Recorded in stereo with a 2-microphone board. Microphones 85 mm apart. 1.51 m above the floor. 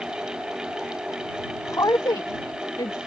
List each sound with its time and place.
1.7 s a woman speaking: 35° left (ahead or behind); by 3.0 s 60° left (ahead or behind)